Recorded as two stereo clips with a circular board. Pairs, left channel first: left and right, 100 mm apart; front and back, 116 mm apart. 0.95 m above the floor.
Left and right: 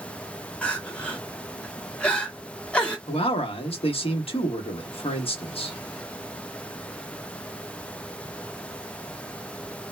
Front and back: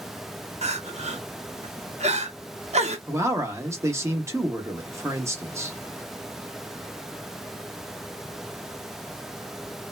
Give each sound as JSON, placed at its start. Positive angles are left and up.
{"t": 0.6, "sound": "crying", "azimuth_deg": 170, "distance_m": 0.7}
{"t": 3.1, "sound": "a man speaking", "azimuth_deg": 115, "distance_m": 0.9}